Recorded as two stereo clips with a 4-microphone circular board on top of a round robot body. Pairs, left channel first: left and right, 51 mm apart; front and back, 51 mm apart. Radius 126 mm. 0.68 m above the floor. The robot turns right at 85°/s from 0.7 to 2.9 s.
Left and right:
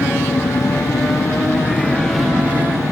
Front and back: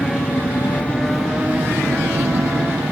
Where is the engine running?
55° left; by 2.9 s 120° right.